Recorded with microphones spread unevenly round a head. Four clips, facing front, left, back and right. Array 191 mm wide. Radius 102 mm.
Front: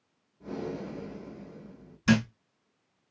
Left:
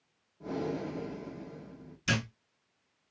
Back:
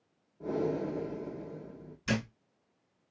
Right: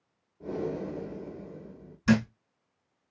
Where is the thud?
25° right, 2.5 m.